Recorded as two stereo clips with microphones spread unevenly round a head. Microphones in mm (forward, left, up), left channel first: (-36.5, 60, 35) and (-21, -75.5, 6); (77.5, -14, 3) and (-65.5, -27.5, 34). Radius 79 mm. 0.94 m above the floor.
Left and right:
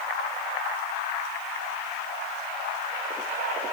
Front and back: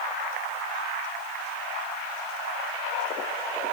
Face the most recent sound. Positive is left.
No sound to turn to.